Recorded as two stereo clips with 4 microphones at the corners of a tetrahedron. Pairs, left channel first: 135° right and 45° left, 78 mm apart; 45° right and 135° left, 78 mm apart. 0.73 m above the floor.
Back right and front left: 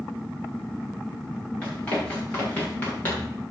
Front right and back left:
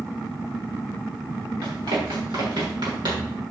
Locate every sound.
1.6 s running footsteps: 150° left, 7 m; by 3.4 s 155° left, 7 m